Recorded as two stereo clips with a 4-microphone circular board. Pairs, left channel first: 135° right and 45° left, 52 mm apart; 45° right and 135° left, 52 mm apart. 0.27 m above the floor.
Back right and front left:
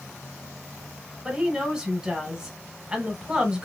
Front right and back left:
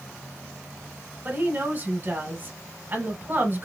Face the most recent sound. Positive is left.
turn(degrees=115)